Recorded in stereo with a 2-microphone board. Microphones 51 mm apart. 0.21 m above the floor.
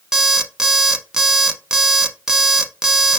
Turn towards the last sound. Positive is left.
turn(degrees=-10)  # may be behind; listen again after turning